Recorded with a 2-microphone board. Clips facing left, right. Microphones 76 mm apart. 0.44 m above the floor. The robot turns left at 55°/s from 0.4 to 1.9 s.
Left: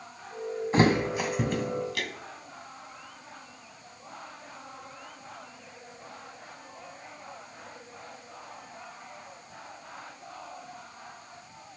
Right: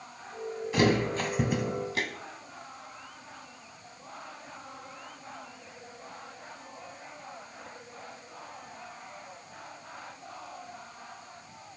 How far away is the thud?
About 1.2 m.